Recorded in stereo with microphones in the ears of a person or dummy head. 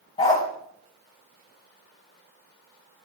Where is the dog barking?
35° left (ahead or behind), 3 m.